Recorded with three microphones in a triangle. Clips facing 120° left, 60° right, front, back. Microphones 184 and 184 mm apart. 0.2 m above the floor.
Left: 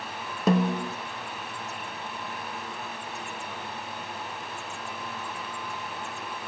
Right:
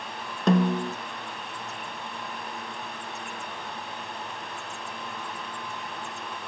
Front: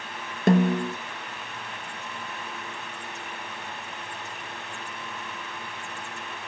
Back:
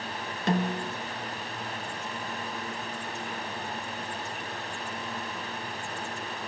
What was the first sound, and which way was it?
A snare drum, 35° left.